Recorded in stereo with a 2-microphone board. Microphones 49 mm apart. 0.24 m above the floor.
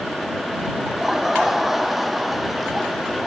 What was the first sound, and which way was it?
Laughter, 10° right (ahead or behind).